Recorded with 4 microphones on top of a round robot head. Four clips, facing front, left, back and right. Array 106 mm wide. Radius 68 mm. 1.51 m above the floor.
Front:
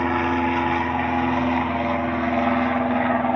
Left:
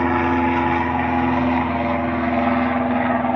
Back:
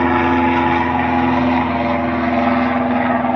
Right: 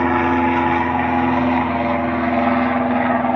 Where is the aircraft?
170° right; by 3.4 s 155° right.